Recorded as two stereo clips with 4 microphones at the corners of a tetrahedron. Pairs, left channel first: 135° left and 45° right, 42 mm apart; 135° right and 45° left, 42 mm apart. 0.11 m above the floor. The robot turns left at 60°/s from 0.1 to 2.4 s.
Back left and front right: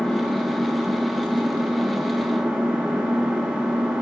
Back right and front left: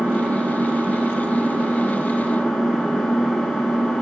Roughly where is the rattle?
I don't hear a rattle.